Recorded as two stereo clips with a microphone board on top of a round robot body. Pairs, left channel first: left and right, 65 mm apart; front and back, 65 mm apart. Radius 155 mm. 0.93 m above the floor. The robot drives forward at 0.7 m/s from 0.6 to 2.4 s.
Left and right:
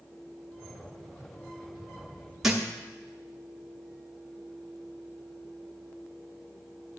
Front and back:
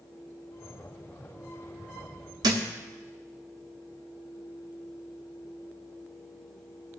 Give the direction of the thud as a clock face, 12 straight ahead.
6 o'clock.